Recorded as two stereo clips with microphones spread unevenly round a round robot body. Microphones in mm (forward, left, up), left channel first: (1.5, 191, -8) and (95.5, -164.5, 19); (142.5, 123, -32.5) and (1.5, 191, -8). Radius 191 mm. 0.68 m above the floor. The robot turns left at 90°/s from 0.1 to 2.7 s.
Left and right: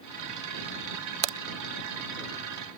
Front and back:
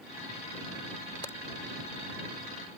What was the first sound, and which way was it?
A crack, 100° right.